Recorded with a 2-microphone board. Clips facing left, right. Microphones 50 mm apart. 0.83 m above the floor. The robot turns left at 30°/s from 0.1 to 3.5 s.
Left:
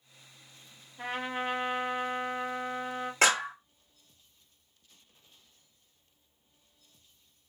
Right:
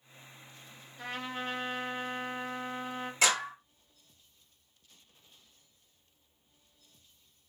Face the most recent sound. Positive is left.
turn(degrees=40)  # may be behind; listen again after turning